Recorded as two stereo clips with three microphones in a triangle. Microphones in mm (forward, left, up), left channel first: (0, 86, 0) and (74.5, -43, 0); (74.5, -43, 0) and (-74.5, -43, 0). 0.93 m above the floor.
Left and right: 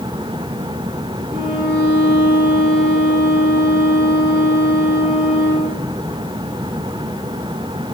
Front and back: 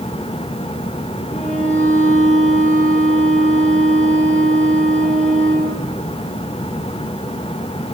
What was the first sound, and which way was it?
A violin, 40° right.